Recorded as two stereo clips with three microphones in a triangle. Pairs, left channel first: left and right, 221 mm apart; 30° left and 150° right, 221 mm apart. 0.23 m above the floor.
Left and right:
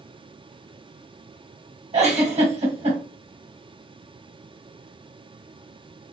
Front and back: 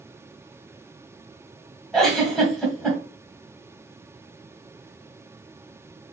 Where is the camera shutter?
I don't hear a camera shutter.